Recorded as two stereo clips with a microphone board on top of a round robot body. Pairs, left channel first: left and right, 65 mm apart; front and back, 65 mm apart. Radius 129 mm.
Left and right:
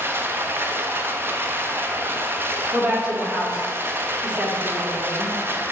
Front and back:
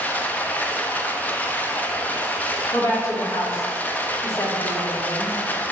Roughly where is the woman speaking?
Ahead.